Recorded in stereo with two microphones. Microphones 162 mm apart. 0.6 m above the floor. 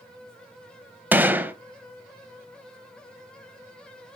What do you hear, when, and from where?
1.1 s a gunshot: 10° right (ahead or behind), 0.8 m